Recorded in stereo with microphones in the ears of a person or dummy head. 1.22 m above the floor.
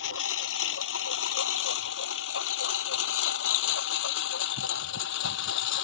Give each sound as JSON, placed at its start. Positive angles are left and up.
{"t": 0.0, "sound": "a lawn mower", "side_deg": 80}